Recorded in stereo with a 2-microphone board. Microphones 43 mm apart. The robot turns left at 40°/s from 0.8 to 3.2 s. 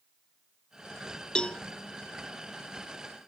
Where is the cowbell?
20° left (ahead or behind); by 1.6 s 30° left (ahead or behind).